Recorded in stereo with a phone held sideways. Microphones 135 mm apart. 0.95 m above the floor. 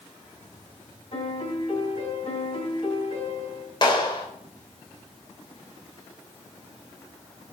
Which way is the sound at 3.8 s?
40° left (ahead or behind).